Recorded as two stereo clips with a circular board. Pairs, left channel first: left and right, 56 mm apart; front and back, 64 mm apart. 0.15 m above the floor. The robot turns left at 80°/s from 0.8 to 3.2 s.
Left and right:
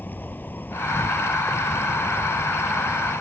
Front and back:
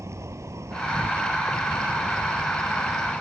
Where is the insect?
145° left; by 3.2 s 45° right.